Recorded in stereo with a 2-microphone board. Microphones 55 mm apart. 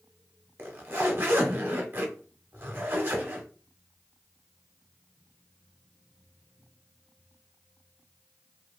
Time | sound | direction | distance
0.6 | a zipper | 40° right (ahead or behind) | 0.8 m